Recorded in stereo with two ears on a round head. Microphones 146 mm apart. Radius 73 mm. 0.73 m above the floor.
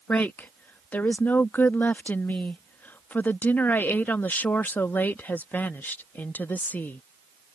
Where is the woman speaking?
10° left (ahead or behind).